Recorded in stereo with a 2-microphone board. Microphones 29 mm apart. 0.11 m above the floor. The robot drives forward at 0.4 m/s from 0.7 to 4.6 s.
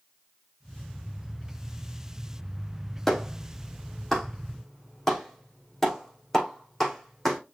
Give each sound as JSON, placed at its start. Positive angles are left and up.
{"t": 3.1, "sound": "a clap", "side_deg": 5, "distance_m": 4.0}